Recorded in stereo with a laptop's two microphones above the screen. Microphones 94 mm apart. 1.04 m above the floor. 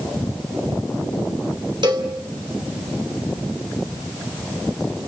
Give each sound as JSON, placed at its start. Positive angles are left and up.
{"t": 1.8, "sound": "a cowbell", "side_deg": -55, "distance_m": 2.5}